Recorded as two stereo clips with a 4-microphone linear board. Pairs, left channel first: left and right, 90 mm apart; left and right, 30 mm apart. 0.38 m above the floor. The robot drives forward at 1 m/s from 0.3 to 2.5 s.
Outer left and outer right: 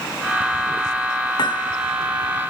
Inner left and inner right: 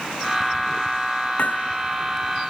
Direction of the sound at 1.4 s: 55° left (ahead or behind).